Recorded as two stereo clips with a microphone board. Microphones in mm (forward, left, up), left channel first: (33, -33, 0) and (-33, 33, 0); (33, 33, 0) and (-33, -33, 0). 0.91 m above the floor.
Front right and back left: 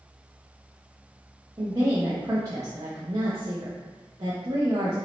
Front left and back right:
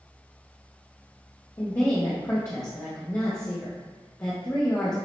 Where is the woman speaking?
100° left, 0.9 m.